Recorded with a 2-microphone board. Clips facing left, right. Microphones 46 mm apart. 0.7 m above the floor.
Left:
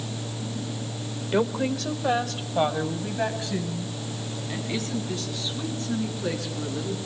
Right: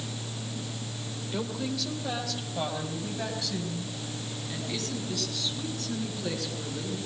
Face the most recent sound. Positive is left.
turn(degrees=25)  # may be behind; listen again after turning